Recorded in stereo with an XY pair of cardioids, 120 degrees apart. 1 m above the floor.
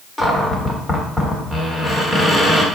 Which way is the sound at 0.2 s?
20° left.